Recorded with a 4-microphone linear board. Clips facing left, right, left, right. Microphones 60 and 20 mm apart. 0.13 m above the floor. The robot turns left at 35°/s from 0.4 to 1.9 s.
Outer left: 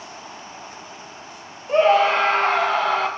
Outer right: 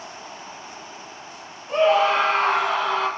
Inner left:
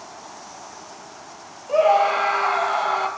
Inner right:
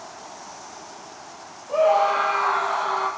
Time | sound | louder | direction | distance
1.7 | a scream | outer left 2 dB, inner left 2 dB | 35° left (ahead or behind) | 3 m